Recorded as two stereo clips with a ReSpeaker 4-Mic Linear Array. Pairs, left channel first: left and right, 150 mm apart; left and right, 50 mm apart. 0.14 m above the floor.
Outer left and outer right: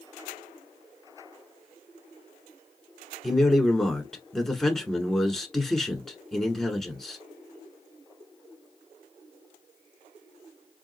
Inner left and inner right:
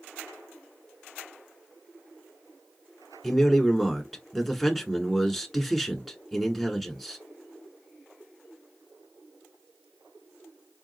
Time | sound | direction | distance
3.2 | a man speaking | centre (ahead or behind) | 1.4 m